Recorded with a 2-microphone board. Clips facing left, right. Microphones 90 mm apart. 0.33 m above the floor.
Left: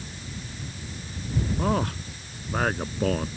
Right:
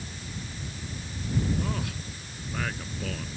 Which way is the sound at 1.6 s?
45° left (ahead or behind).